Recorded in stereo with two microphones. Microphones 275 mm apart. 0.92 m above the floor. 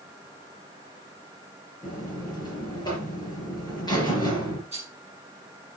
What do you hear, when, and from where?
1.8 s a buzzer: 15° left (ahead or behind), 5 m
4.7 s a rattle: 25° right (ahead or behind), 6 m